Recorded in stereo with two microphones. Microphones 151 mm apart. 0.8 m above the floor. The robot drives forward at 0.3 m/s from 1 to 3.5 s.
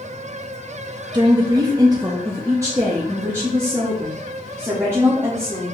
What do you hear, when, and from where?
1.1 s a woman speaking: 30° right (ahead or behind), 0.5 m; by 5.8 s 15° right (ahead or behind), 1.0 m